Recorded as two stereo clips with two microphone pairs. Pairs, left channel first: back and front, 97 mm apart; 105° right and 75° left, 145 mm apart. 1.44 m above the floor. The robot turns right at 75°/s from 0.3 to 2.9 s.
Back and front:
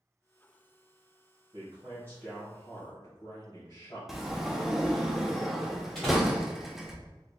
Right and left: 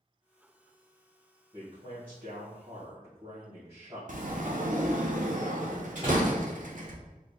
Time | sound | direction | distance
1.5 | a man speaking | 30° left | 1.8 m
4.1 | a sliding door | 85° left | 0.5 m
6.0 | a door slam | 95° left | 1.5 m